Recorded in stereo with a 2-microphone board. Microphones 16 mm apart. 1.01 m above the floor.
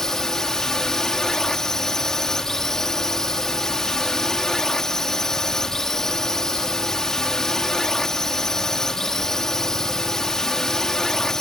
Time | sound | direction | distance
0.0 | a drone | 35° left (ahead or behind) | ?